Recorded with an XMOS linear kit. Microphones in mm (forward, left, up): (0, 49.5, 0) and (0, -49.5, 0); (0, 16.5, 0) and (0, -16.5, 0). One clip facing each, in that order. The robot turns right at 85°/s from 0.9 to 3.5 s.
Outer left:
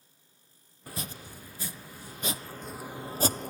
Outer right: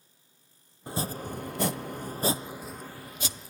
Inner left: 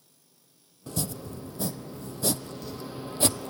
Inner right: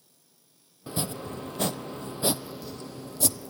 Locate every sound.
0.9 s chopping: 25° right (ahead or behind), 0.5 m; by 3.5 s 65° left (ahead or behind), 0.5 m